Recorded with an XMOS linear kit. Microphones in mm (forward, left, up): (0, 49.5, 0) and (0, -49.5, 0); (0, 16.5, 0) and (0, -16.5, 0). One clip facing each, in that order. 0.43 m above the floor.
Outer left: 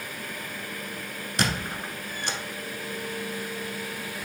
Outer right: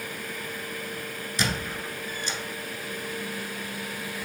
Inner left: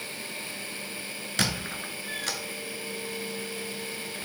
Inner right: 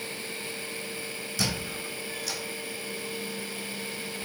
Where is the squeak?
60° left (ahead or behind), 0.7 m.